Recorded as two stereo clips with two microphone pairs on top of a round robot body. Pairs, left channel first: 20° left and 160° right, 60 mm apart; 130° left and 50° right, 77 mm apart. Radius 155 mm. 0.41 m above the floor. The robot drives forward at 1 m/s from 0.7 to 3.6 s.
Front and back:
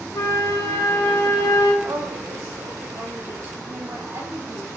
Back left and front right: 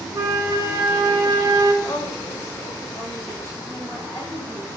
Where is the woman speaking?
175° right, 3 m.